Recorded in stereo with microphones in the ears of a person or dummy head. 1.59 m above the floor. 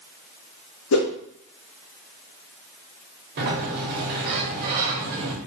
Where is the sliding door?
55° right (ahead or behind), 0.8 m.